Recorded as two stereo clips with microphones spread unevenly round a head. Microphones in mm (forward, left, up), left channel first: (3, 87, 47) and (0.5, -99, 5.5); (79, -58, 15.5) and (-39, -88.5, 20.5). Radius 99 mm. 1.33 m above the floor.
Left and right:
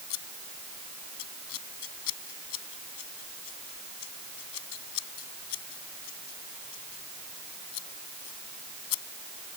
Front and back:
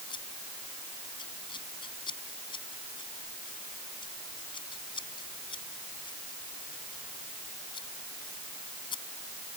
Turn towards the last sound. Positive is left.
turn(degrees=85)